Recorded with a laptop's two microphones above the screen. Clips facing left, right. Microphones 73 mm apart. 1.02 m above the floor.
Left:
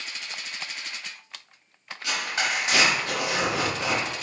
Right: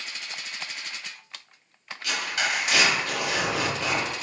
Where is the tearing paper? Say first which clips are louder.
Even; 25° left (ahead or behind), 1.3 m.